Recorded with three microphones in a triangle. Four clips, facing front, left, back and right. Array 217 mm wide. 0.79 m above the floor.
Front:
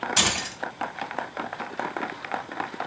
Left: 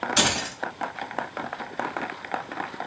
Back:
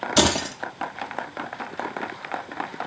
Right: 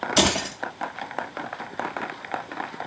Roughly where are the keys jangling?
Behind right.